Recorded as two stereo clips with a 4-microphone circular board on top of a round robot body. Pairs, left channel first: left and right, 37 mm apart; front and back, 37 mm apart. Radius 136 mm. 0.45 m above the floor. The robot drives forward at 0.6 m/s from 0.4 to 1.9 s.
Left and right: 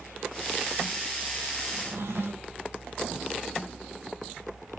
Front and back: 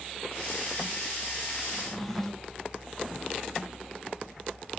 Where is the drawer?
75° right, 0.7 m; by 2.6 s 85° right, 0.6 m.